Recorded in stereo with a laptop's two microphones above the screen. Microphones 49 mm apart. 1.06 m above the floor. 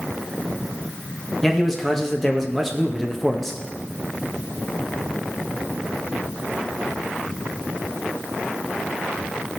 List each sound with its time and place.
1.4 s a man speaking: 5° left (ahead or behind), 1.4 m